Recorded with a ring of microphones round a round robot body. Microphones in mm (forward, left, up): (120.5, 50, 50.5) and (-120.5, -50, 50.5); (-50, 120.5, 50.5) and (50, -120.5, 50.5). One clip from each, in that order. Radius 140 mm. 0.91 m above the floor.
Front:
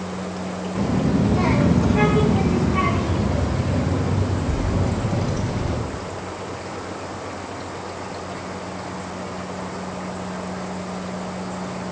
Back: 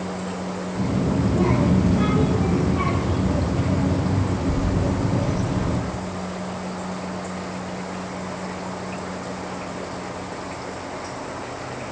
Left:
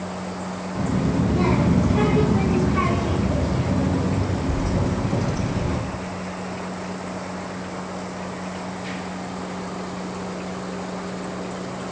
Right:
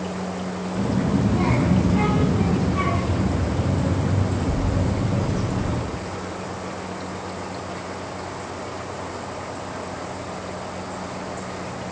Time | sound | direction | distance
0.8 | a child speaking | 15° left | 1.3 m